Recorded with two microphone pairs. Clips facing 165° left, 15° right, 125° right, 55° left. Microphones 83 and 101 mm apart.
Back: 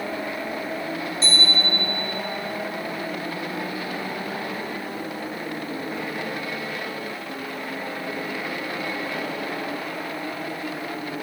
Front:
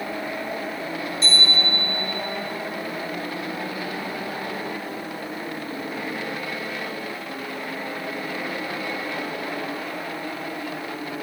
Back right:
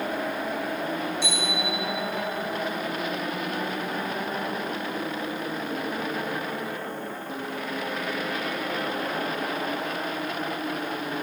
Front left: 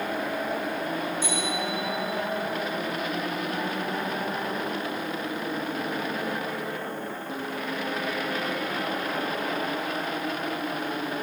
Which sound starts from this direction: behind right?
A bicycle bell, at 1.2 s.